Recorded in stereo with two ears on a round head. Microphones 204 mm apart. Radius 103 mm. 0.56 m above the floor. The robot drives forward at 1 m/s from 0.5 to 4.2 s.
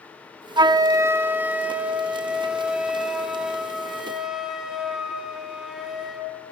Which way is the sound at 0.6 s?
20° right (ahead or behind).